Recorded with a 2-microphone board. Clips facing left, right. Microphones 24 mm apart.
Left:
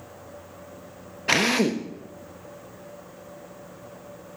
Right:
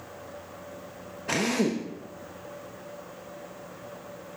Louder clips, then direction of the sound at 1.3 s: Left 5 dB; 65° left (ahead or behind).